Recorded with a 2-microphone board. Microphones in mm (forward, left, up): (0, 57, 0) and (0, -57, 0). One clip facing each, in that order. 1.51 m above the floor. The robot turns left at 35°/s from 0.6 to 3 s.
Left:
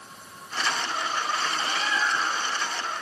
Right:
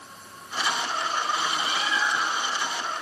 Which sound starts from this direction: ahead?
A bird, at 1.6 s.